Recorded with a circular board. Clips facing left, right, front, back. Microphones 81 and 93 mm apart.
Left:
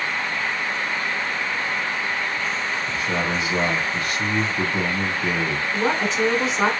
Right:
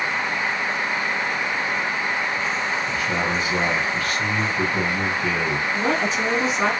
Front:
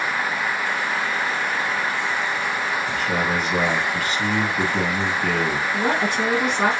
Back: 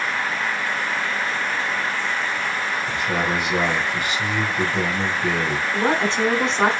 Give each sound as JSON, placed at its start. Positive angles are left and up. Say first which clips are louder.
{"t": 2.9, "sound": "a man speaking", "louder": "right 1 dB, back 1 dB", "azimuth_deg": 125, "distance_m": 1.5}
{"t": 5.7, "sound": "a woman speaking", "louder": "left 2 dB, back 3 dB", "azimuth_deg": 140, "distance_m": 1.2}